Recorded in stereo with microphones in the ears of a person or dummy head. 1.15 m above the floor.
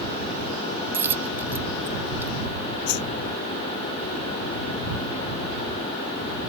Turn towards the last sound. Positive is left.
turn(degrees=55)  # may be behind; listen again after turning